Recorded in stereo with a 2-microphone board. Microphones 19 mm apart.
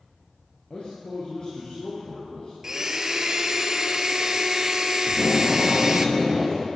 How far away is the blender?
About 0.7 m.